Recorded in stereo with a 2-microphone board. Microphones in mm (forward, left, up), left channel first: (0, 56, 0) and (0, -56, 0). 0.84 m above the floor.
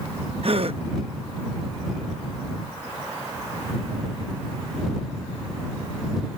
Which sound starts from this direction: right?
A gasp, at 0.4 s.